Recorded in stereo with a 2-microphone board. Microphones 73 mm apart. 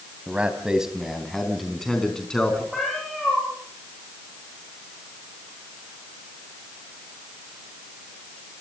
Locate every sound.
0.3 s a man speaking: 15° right (ahead or behind), 3 m; by 2.6 s 15° left (ahead or behind), 5 m
2.7 s a cat meowing: centre (ahead or behind), 8.5 m